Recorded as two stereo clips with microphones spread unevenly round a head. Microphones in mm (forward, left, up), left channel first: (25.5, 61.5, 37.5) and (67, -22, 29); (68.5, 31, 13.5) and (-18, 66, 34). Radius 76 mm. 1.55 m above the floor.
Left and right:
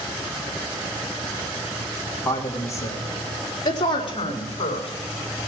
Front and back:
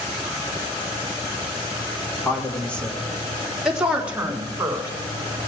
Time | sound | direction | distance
2.2 | a woman speaking | 50° left | 3 m